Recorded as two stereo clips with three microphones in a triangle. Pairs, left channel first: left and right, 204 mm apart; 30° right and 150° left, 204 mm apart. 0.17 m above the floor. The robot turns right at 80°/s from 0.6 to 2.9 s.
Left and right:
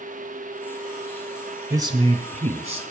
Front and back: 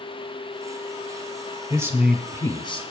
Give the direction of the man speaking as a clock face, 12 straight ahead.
5 o'clock.